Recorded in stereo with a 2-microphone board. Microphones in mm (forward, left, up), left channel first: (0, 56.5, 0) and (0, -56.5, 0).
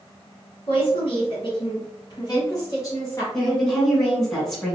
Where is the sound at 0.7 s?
50° left (ahead or behind), 1.6 m; by 3.2 s 25° left (ahead or behind), 1.9 m.